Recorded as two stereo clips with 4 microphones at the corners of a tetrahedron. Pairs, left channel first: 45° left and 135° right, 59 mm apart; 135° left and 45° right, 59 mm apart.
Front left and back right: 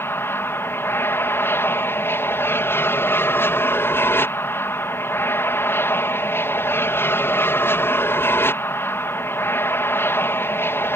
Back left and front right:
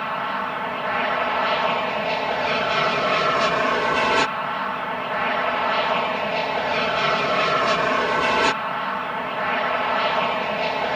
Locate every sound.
0.0 s an aircraft: 50° left